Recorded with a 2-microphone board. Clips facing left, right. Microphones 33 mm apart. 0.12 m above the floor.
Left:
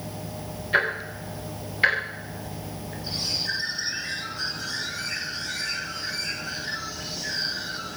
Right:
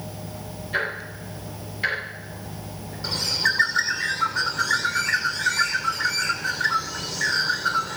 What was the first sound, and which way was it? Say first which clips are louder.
Ticking: left 3 dB; 30° left (ahead or behind).